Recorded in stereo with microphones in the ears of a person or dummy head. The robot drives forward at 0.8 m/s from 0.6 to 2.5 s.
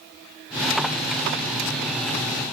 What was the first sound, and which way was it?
Only background noise.